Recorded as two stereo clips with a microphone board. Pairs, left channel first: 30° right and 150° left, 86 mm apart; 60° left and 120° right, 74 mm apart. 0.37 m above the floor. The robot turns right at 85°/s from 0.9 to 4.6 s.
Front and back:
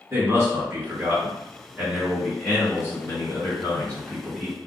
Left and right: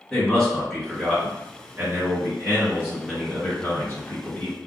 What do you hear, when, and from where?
0.1 s a man speaking: 130° left, 1.6 m; by 4.6 s 85° left, 1.6 m